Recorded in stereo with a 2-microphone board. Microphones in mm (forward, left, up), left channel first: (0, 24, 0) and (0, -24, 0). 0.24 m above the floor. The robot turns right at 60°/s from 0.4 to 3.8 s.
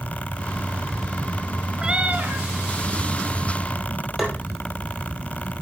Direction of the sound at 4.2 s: 5° right (ahead or behind).